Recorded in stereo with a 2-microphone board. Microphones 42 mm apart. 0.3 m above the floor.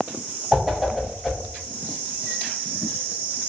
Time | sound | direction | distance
0.5 | a whoosh | 5° right (ahead or behind) | 0.7 m